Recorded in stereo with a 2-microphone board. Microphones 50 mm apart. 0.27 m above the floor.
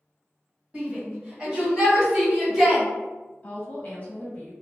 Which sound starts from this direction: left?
A woman speaking, at 3.4 s.